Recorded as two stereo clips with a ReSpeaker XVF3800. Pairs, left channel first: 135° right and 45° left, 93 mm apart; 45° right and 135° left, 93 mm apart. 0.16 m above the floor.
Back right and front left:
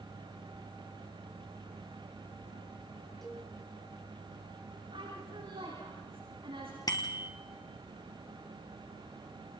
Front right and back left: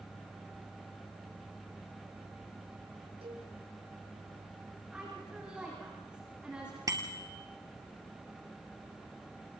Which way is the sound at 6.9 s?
175° right.